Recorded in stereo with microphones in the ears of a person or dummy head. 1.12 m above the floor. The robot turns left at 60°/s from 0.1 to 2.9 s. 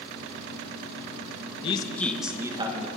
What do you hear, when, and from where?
1.6 s a man speaking: 35° left, 1.1 m; by 2.9 s 40° right, 1.1 m